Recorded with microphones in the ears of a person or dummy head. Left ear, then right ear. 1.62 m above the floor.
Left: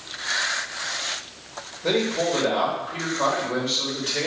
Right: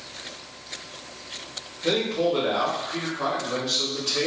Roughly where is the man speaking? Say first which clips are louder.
Even; centre.